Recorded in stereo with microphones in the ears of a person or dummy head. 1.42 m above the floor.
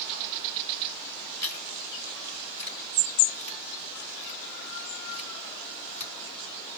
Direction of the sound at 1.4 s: 15° left (ahead or behind).